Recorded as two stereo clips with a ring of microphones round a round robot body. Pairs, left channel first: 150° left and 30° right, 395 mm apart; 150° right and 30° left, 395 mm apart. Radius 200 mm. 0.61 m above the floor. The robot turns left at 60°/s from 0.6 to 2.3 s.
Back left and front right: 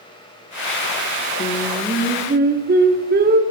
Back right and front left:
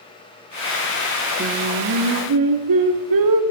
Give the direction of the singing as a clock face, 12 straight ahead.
9 o'clock.